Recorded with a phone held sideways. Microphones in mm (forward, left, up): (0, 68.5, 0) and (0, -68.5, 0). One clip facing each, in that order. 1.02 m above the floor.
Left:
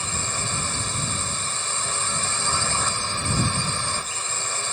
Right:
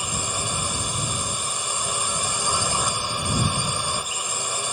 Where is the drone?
15° right (ahead or behind).